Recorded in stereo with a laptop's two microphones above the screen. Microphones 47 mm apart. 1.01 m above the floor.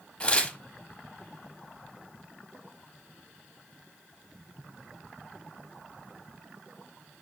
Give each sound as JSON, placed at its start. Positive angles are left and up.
{"t": 0.2, "sound": "tearing paper", "side_deg": 20, "distance_m": 0.9}